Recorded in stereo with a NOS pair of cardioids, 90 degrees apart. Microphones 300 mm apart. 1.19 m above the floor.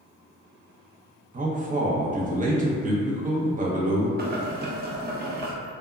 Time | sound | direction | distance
1.3 | a man speaking | 25° right | 0.7 m
4.2 | boiling | 30° right | 0.6 m